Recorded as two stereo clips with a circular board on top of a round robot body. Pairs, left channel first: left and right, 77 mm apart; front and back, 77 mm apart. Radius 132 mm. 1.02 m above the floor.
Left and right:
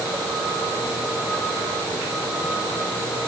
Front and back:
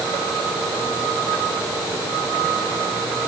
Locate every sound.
Only background noise.